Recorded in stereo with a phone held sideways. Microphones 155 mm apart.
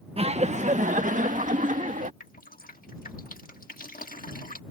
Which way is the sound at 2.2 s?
80° left.